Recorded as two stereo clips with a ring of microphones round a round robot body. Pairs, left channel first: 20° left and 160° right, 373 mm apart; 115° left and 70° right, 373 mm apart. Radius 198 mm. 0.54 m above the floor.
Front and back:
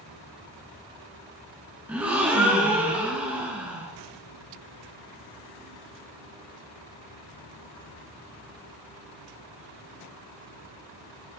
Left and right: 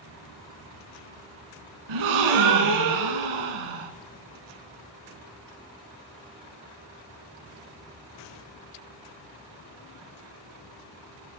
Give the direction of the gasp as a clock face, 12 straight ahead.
2 o'clock.